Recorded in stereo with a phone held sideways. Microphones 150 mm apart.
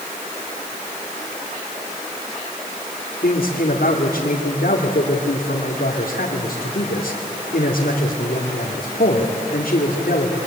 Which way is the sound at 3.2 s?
85° left.